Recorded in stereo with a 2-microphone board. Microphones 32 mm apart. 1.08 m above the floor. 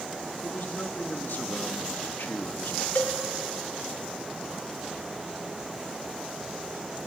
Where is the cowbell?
65° left (ahead or behind), 2.5 m.